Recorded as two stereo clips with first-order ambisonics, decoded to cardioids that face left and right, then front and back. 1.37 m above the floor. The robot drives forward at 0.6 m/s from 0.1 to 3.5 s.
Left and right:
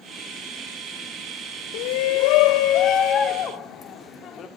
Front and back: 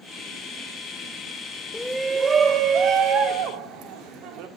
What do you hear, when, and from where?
1.7 s a shout: 80° left, 0.6 m; by 4.5 s 150° left, 1.1 m